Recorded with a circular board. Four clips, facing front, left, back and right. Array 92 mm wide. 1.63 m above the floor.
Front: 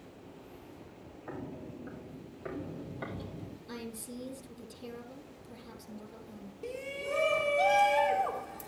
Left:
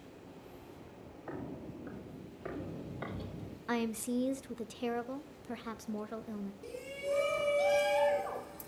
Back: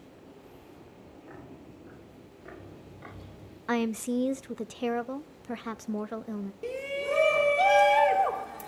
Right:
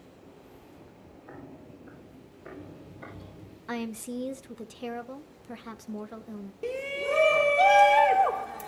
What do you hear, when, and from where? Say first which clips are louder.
1.3 s footsteps: left 4 dB, front 7 dB; 55° left, 3 m; by 3.6 s 50° left, 4 m
3.7 s a woman speaking: even, back 17 dB; straight behind, 0.9 m
6.6 s a shout: right 9 dB, back 5 dB; 115° right, 2.0 m